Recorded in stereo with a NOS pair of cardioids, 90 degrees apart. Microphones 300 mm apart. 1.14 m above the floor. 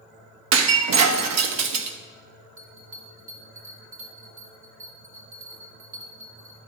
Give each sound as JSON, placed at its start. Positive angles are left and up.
{"t": 0.5, "sound": "breaking glass", "azimuth_deg": -65, "distance_m": 1.0}
{"t": 2.6, "sound": "a bell", "azimuth_deg": -50, "distance_m": 3.0}